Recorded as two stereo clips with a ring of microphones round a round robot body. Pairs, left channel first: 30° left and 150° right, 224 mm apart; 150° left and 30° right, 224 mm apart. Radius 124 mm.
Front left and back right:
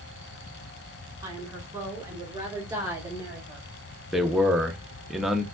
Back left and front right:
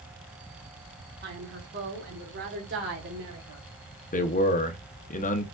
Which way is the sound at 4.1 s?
120° left.